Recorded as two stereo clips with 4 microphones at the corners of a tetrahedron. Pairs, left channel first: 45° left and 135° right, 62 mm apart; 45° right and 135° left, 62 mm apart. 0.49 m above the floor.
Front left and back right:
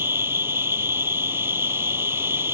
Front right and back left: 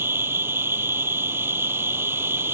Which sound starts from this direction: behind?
An insect, at 0.0 s.